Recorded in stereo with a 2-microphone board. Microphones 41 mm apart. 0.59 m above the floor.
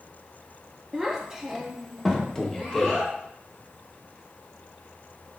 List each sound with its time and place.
0.9 s a child speaking: 10° right (ahead or behind), 0.5 m; by 3.1 s centre (ahead or behind), 1.7 m
2.4 s a man speaking: 10° left (ahead or behind), 0.7 m